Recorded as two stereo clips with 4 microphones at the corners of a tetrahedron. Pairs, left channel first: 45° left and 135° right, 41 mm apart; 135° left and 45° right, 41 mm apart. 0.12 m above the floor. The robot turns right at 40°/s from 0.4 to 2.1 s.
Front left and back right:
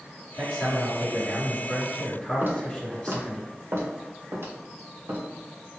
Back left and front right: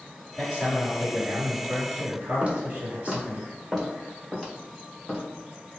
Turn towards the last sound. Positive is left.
turn(degrees=-140)